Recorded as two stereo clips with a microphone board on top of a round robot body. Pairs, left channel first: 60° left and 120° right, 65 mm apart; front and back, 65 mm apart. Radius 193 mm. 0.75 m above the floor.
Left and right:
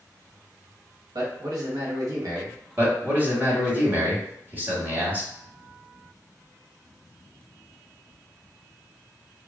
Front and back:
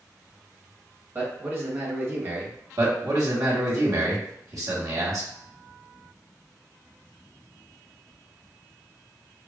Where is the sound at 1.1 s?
125° right, 1.3 m.